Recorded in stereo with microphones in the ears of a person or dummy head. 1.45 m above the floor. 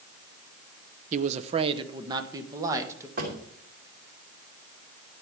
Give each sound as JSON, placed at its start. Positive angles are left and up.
{"t": 1.1, "sound": "a man speaking", "side_deg": -50, "distance_m": 0.7}
{"t": 3.2, "sound": "a drawer", "side_deg": -50, "distance_m": 3.0}